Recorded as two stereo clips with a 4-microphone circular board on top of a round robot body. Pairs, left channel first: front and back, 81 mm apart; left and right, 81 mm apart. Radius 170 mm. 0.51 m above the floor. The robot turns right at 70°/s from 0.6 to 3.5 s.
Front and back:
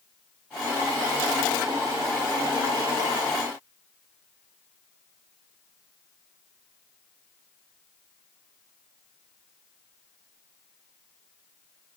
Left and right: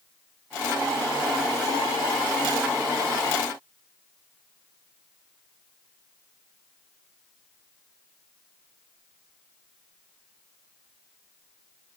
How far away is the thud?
I don't hear a thud.